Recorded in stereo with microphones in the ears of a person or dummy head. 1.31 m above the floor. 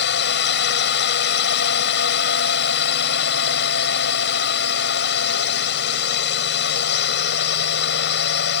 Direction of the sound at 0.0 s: 60° left (ahead or behind).